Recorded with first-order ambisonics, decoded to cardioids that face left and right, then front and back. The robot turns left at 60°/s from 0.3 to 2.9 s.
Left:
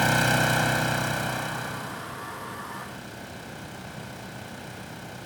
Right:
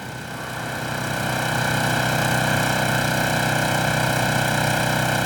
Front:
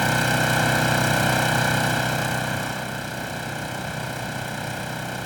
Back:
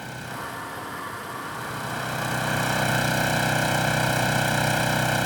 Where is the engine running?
40° left; by 5.3 s 115° right.